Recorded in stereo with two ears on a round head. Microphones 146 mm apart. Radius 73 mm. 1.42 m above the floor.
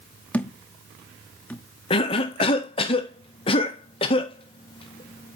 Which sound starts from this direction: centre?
A thud, at 0.3 s.